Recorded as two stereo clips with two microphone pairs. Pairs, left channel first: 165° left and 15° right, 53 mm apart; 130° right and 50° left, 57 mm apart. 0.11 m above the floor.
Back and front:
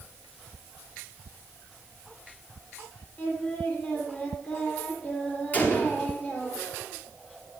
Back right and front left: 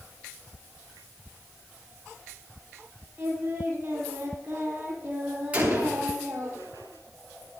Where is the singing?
105° left, 3 m.